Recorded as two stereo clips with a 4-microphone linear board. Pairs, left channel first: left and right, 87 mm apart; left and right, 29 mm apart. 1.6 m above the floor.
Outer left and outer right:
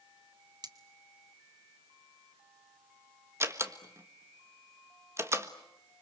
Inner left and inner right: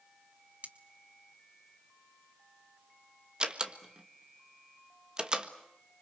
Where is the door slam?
30° right (ahead or behind), 1.5 m.